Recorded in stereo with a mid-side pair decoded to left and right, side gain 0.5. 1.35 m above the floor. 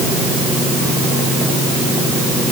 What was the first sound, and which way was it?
Only background noise.